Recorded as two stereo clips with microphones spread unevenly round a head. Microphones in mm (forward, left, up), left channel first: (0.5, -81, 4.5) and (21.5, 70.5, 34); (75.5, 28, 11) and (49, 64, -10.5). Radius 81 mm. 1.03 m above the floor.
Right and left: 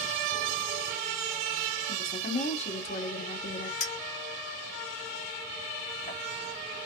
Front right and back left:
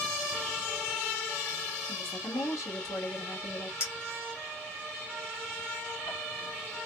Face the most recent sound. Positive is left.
turn(degrees=-50)